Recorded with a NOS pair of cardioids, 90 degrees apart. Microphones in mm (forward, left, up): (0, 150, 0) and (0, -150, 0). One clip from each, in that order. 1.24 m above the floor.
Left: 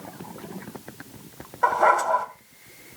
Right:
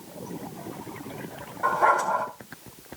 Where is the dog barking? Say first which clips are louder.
Left 2 dB; 50° left, 3 m.